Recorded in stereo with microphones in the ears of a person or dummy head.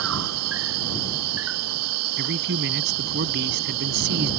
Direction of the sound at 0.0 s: 80° right.